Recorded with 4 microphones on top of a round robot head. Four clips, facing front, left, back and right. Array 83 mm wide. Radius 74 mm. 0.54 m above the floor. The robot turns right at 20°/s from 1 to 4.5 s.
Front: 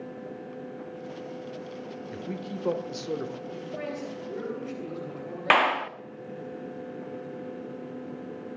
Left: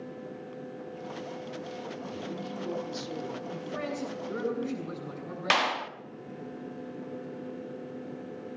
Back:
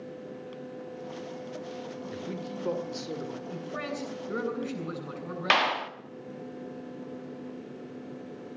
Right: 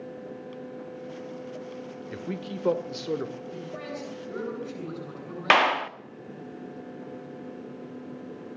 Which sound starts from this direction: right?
A man speaking, at 2.1 s.